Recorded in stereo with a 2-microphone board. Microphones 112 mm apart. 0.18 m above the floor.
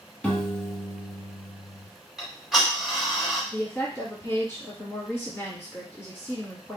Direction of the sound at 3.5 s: 25° left (ahead or behind).